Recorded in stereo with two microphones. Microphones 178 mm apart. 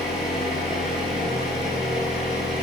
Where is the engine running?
Centre (ahead or behind), 0.8 m.